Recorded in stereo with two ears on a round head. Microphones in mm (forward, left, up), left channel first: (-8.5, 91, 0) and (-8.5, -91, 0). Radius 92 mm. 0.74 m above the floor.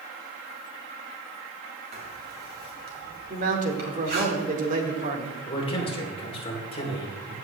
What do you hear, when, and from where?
1.9 s writing: 45° right (ahead or behind), 5 m
3.3 s a man speaking: 40° right (ahead or behind), 2.0 m
5.5 s a man speaking: 25° left (ahead or behind), 3 m